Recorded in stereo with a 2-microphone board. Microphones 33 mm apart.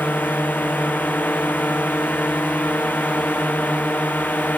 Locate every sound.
0.0 s a drone: 65° left (ahead or behind); by 4.6 s 60° left (ahead or behind)